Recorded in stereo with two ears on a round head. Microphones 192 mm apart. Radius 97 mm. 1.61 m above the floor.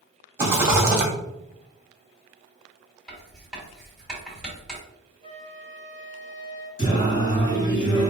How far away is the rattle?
About 1.3 m.